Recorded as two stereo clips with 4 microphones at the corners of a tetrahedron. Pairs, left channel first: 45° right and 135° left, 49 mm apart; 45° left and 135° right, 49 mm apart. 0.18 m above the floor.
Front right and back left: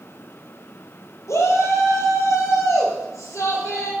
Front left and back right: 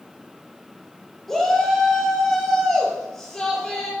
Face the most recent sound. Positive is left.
turn(degrees=-40)